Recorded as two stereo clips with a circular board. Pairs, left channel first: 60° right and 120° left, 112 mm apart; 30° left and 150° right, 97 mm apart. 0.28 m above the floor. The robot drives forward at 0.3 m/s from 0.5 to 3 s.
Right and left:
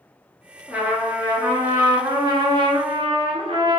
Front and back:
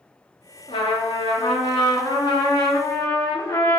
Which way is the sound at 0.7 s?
45° left.